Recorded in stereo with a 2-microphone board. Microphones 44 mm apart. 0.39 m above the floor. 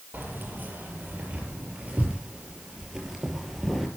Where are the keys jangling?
50° right (ahead or behind), 8 m; by 3.9 s 5° right (ahead or behind), 7 m.